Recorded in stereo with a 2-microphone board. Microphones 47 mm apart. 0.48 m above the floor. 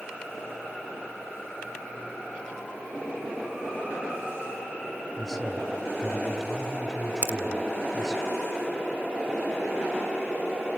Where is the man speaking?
Centre (ahead or behind), 2.0 m.